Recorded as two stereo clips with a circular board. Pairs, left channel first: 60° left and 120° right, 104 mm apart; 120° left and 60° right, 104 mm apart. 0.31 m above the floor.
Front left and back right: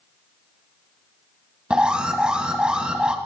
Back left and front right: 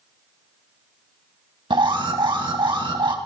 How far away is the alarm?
About 2 m.